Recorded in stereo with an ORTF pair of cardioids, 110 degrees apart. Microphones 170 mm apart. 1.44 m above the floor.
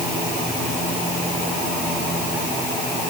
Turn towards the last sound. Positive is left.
No sound to turn to.